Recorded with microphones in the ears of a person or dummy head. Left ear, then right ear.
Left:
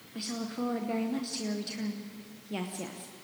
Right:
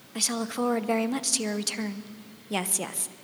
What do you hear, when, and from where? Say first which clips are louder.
0.1 s a woman speaking: right 8 dB; 40° right (ahead or behind), 0.8 m